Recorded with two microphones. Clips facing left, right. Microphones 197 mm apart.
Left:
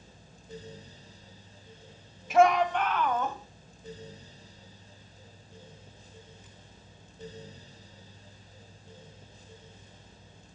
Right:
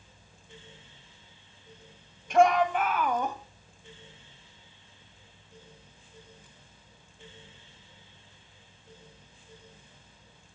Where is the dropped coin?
No dropped coin in this recording.